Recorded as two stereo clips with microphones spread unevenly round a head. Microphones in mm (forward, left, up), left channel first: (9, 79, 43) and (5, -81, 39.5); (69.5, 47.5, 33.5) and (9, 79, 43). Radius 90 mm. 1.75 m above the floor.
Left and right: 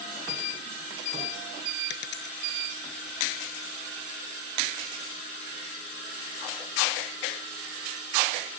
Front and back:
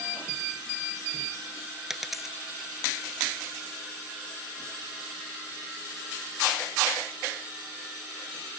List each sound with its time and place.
1.9 s a dropped coin: 70° left